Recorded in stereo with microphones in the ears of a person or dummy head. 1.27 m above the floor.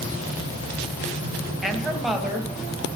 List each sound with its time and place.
1.6 s a woman speaking: centre (ahead or behind), 1.0 m